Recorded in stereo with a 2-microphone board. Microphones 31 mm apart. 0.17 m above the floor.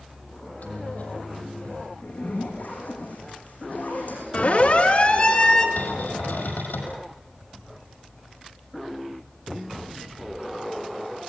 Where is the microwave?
60° left (ahead or behind), 6 m.